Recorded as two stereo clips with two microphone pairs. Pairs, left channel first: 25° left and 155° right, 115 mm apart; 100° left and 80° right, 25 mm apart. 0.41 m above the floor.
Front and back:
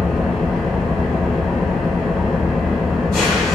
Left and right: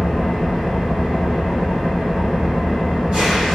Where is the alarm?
No alarm in this recording.